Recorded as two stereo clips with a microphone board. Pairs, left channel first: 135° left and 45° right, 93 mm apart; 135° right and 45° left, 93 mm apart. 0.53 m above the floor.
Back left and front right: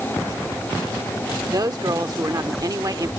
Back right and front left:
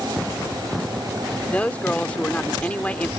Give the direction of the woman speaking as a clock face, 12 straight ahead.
2 o'clock.